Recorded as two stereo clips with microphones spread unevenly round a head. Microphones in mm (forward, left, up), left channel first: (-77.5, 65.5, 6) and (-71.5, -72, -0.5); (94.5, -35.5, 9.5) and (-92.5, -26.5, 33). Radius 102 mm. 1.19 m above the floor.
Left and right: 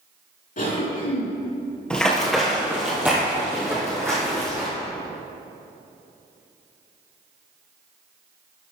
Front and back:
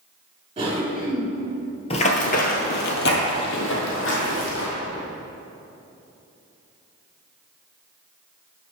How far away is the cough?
About 3 m.